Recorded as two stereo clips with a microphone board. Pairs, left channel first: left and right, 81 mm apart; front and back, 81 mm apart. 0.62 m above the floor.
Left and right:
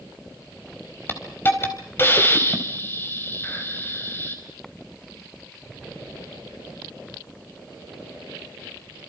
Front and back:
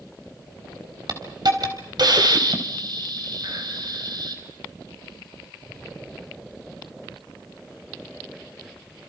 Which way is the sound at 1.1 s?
155° left.